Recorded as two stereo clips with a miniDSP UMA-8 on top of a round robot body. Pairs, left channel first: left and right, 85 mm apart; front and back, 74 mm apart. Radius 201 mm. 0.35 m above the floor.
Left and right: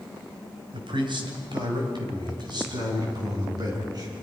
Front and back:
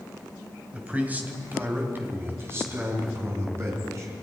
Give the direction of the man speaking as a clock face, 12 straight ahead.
4 o'clock.